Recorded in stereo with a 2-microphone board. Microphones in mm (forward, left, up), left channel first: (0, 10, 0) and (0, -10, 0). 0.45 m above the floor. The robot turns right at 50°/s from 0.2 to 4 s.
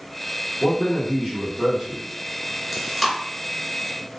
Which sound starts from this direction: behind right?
A man speaking, at 0.6 s.